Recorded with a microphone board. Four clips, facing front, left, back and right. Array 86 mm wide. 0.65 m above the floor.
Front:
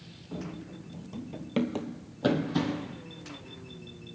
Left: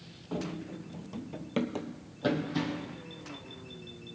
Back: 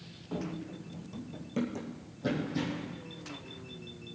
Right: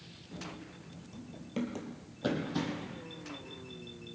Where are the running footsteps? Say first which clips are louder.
Left 9 dB, back 2 dB; 110° left, 1.2 m; by 3.0 s straight ahead, 1.9 m.